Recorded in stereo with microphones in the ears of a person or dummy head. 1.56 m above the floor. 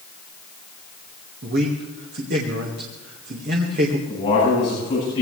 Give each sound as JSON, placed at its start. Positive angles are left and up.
{"t": 1.4, "sound": "a man speaking", "side_deg": -50, "distance_m": 1.9}
{"t": 4.1, "sound": "a man speaking", "side_deg": 30, "distance_m": 10.0}